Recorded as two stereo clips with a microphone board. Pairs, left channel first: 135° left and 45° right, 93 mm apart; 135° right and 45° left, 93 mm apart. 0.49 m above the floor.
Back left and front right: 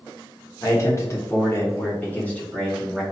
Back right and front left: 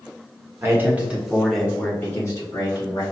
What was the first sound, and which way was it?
A man speaking, 100° left.